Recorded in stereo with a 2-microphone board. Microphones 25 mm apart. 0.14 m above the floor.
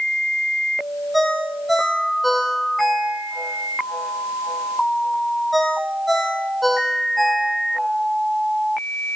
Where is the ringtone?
Centre (ahead or behind), 3 m.